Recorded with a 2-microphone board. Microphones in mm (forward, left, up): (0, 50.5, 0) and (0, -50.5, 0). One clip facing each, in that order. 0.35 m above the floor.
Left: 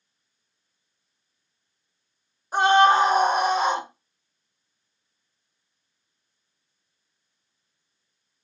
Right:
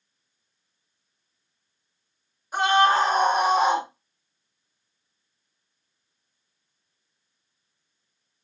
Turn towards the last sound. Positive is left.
turn(degrees=-20)  # may be behind; listen again after turning